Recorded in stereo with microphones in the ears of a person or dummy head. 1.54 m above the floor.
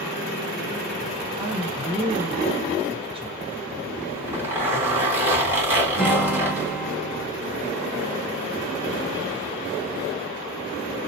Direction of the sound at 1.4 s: 20° right (ahead or behind).